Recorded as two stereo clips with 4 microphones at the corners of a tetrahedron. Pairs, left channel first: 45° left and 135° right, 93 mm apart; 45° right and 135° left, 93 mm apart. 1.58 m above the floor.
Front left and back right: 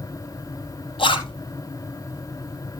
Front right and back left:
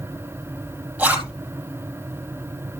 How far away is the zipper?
About 4.5 m.